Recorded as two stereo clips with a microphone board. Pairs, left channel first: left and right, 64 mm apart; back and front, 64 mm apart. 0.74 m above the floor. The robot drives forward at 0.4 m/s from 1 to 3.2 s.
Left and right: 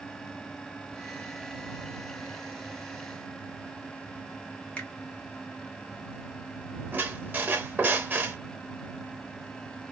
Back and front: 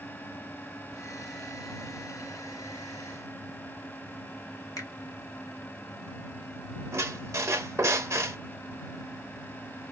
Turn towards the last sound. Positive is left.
turn(degrees=-35)